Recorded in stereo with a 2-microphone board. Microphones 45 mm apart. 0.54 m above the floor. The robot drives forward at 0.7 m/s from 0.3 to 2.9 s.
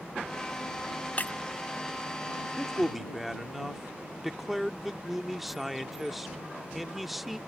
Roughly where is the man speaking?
Centre.